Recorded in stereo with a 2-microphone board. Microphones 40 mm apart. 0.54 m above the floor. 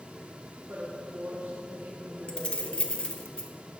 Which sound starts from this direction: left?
Keys jangling, at 2.3 s.